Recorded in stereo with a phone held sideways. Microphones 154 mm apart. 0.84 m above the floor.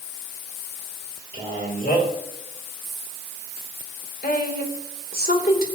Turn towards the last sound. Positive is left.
turn(degrees=75)  # may be behind; listen again after turning